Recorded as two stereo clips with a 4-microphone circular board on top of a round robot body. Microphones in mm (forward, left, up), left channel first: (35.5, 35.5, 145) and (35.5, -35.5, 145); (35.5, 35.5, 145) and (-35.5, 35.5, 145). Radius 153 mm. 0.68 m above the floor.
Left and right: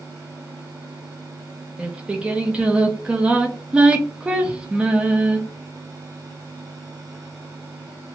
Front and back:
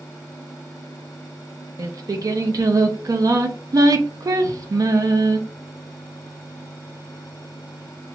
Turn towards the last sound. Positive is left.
turn(degrees=-160)